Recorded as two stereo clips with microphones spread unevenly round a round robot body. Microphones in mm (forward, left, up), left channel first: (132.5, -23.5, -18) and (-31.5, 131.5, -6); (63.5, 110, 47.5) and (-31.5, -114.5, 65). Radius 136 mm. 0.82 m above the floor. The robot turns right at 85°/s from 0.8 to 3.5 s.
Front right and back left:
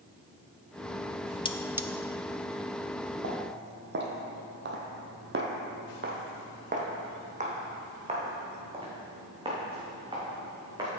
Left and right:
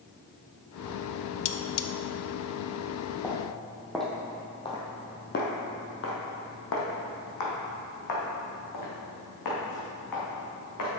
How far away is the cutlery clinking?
About 0.6 m.